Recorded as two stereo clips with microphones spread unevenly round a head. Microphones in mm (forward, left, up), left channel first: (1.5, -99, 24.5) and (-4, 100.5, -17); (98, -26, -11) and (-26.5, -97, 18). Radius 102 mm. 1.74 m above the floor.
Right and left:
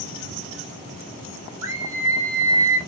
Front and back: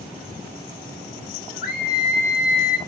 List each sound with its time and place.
1.6 s a scream: 15° left, 3 m; by 2.8 s 20° left, 1.9 m